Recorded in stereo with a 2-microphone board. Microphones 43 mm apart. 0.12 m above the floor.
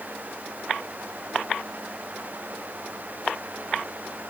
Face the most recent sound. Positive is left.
No sound to turn to.